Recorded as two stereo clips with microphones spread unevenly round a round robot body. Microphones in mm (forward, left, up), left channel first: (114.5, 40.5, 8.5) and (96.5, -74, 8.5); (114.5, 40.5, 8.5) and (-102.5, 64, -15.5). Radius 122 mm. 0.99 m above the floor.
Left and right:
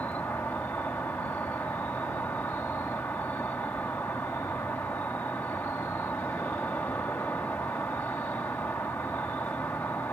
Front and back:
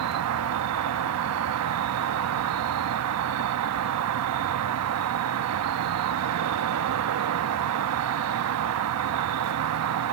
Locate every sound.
0.0 s an insect: 165° left